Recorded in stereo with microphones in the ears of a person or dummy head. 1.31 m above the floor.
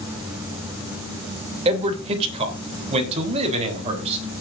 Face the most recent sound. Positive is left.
turn(degrees=-35)  # may be behind; listen again after turning